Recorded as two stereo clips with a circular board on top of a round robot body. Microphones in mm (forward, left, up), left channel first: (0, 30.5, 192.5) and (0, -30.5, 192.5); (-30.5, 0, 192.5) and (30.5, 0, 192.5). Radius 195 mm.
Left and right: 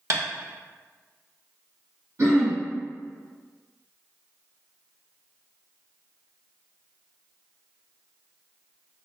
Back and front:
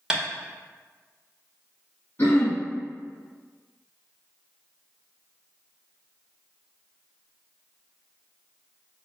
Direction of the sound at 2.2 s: 130° right.